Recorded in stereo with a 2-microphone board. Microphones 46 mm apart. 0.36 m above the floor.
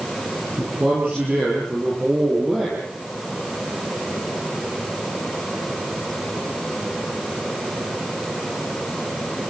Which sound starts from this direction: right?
A man speaking, at 0.6 s.